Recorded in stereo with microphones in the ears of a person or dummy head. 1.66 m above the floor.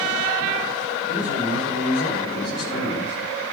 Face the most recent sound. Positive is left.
turn(degrees=70)  # may be behind; listen again after turning